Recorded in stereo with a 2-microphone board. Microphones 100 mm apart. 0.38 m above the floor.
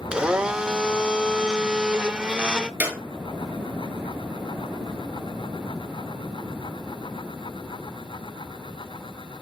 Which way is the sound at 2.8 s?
15° right (ahead or behind).